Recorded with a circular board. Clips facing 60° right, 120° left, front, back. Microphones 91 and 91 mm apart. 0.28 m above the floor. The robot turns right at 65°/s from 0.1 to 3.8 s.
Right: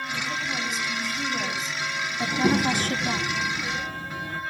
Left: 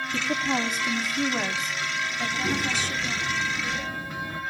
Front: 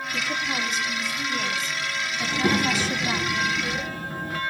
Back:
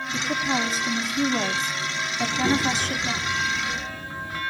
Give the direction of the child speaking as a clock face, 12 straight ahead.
2 o'clock.